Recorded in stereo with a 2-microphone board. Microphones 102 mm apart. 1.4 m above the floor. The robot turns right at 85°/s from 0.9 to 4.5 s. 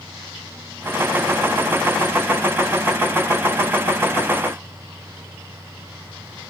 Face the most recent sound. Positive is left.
No sound to turn to.